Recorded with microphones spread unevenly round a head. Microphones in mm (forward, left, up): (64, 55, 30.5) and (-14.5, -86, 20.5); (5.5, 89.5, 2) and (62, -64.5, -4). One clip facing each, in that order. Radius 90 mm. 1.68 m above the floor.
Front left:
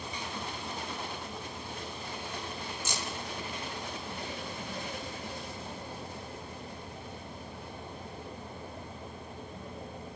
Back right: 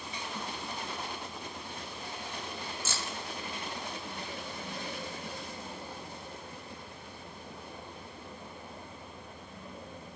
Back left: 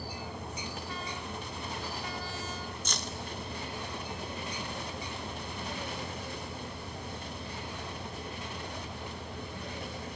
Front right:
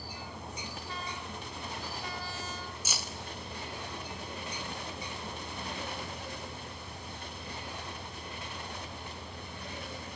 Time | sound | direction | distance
2.9 | keys jangling | 10° left | 0.6 m